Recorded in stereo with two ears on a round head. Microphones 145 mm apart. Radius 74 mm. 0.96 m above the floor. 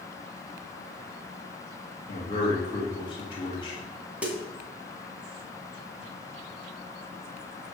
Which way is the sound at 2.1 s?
30° left (ahead or behind).